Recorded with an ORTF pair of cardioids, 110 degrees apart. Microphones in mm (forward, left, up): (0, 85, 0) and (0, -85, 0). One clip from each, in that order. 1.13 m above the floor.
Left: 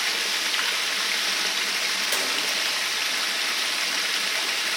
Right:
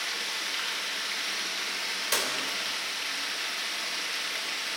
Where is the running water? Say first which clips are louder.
Left 7 dB; 50° left, 1.1 m.